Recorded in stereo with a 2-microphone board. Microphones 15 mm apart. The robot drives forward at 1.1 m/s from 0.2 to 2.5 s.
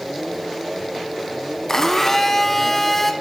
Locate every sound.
1.7 s a blender: 35° left (ahead or behind), 1.0 m; by 3.1 s 20° left (ahead or behind), 1.8 m